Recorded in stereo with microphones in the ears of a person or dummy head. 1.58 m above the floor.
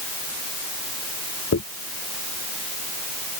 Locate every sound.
1.5 s a dropped coin: 65° left (ahead or behind)